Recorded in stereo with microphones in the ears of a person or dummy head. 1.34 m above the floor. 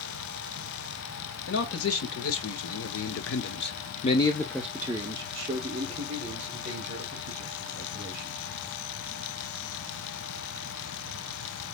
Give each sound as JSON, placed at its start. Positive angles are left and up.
{"t": 1.5, "sound": "a man speaking", "side_deg": 75, "distance_m": 1.6}